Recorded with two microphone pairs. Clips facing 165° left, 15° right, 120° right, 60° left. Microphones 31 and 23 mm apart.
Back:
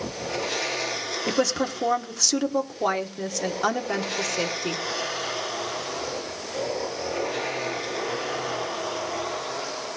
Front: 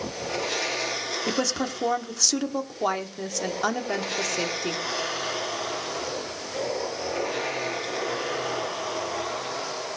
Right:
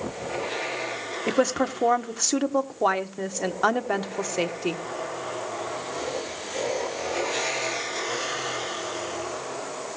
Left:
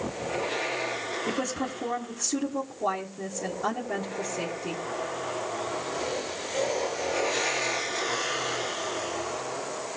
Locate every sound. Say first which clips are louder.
1.3 s a woman speaking: back 4 dB, right 10 dB; 110° right, 1.4 m